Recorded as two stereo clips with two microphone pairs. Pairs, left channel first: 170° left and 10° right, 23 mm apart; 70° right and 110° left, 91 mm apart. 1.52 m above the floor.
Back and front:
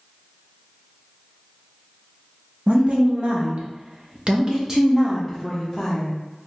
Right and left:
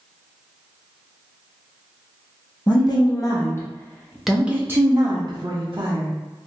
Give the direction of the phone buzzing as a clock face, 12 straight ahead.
I don't hear a phone buzzing.